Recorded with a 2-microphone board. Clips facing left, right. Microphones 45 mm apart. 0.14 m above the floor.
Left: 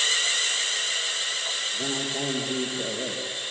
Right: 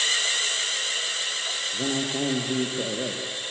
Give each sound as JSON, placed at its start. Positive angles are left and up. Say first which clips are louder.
{"t": 1.7, "sound": "a man speaking", "louder": "right 2 dB", "side_deg": -40, "distance_m": 2.5}